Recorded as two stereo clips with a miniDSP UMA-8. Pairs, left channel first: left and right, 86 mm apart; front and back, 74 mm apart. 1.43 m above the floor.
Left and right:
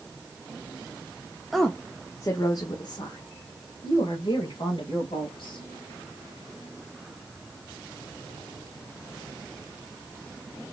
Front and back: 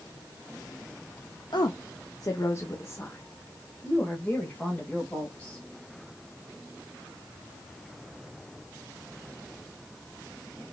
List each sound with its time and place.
1.5 s a woman speaking: straight ahead, 0.7 m; by 5.7 s 80° left, 2.5 m